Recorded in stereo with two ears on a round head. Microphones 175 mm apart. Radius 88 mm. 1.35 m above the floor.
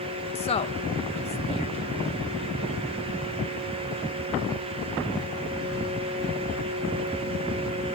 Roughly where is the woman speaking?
Left.